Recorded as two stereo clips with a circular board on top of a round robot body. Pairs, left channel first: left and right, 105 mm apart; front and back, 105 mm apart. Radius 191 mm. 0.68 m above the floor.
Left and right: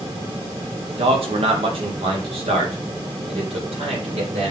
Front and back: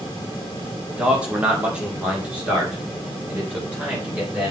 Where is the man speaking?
100° right, 1.8 m; by 4.5 s 105° right, 3.5 m.